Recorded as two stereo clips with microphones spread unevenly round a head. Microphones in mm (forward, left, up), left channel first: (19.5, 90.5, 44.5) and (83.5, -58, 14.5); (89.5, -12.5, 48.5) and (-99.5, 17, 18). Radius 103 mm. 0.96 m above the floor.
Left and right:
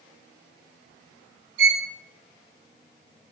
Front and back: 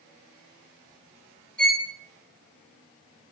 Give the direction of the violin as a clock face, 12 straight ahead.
3 o'clock.